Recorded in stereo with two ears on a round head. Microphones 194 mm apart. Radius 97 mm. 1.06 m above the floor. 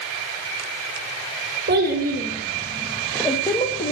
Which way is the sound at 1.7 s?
45° right (ahead or behind).